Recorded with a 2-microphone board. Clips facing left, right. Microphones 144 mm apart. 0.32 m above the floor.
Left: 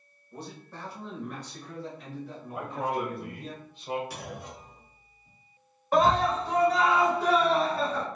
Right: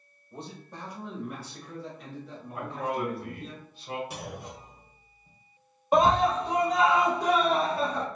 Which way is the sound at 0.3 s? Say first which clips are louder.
Even; 25° right (ahead or behind).